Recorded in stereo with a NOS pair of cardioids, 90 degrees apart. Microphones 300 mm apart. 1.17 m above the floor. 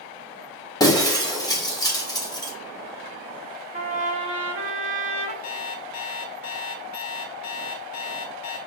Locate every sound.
0.8 s breaking glass: 10° left, 1.1 m
3.7 s a trumpet: 25° right, 1.1 m
5.4 s an alarm clock: 55° left, 1.0 m